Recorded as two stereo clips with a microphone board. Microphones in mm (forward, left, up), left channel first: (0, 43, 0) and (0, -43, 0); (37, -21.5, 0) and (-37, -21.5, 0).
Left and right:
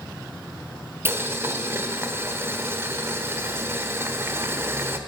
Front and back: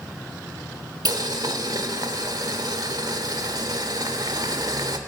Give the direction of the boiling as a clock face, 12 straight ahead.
5 o'clock.